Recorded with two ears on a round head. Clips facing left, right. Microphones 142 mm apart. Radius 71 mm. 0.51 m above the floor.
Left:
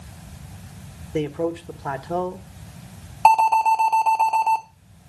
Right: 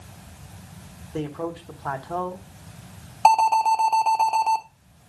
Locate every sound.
1.1 s a man speaking: 20° left (ahead or behind), 1.1 m
3.2 s an alarm: 10° right (ahead or behind), 1.4 m